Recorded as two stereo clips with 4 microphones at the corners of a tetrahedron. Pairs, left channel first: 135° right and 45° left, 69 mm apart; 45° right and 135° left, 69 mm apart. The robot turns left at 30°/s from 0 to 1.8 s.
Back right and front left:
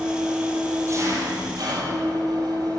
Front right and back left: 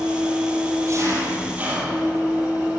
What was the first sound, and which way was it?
An engine running, 115° left.